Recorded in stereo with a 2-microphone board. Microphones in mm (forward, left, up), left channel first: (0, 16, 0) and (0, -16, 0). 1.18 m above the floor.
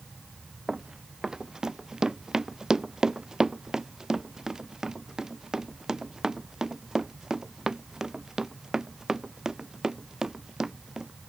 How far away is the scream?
I don't hear a scream.